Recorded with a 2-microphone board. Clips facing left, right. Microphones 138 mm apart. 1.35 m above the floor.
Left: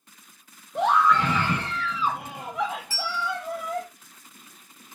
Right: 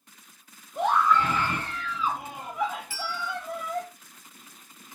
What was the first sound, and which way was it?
A scream, 80° left.